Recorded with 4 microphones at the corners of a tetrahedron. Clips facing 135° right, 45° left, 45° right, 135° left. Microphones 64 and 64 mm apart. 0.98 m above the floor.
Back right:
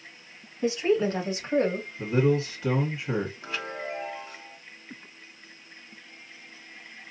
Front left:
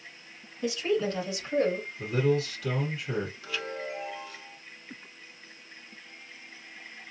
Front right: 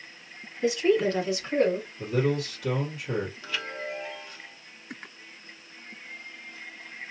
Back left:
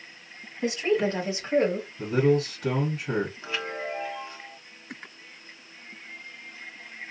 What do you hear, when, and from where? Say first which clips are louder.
0.6 s a woman speaking: back right 4 dB, front right 2 dB; 170° left, 1.6 m; by 1.9 s 160° right, 1.2 m
2.0 s a man speaking: back right 3 dB, back left 5 dB; 175° left, 1.5 m
3.4 s a chime: back right 1 dB, back left 2 dB; 175° right, 0.9 m